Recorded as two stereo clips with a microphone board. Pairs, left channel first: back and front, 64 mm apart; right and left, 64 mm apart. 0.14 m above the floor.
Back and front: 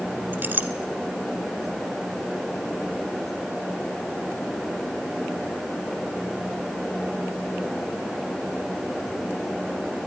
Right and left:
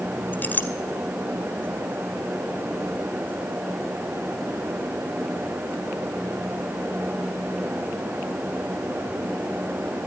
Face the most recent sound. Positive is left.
turn(degrees=-45)